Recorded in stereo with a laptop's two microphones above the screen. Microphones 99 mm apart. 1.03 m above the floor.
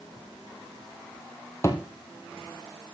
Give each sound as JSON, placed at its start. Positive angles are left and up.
{"t": 1.6, "sound": "a thud", "side_deg": 30, "distance_m": 2.0}